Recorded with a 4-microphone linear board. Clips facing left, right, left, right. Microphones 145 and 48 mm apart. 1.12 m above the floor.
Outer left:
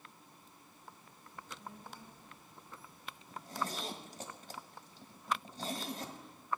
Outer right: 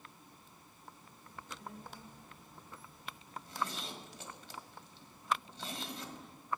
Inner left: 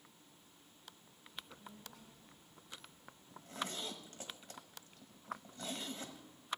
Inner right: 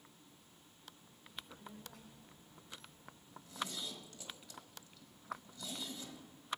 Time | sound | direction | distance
1.2 | a child speaking | 70° right (ahead or behind) | 3 m
3.3 | a zipper | 45° left (ahead or behind) | 1.4 m